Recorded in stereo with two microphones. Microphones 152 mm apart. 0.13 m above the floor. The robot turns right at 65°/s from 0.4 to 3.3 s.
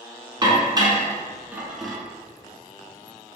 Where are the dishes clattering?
30° right (ahead or behind), 0.8 m; by 2.0 s 5° left (ahead or behind), 0.8 m.